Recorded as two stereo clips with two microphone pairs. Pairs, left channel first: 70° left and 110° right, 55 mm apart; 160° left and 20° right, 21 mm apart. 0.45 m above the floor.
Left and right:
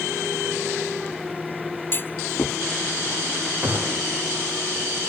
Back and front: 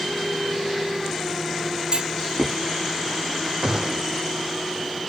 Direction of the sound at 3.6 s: 65° right.